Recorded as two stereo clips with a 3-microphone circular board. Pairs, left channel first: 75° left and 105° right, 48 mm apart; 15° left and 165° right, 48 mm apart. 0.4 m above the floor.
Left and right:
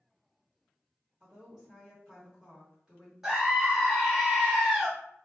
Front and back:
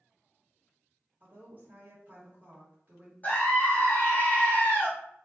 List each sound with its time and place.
1.2 s a woman speaking: 165° right, 0.9 m
3.2 s a scream: 30° right, 1.3 m